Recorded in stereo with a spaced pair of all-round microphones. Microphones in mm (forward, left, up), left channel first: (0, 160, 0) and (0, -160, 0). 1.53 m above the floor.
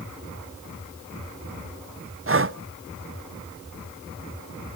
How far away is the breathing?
About 0.5 m.